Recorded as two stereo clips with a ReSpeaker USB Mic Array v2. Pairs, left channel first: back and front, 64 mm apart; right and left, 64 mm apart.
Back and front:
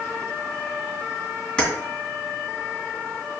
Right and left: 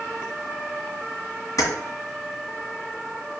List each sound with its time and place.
1.6 s keys jangling: 110° right, 2 m